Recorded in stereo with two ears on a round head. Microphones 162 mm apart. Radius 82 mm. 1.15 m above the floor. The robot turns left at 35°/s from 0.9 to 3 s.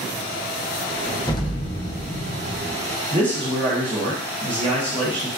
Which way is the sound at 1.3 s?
155° left.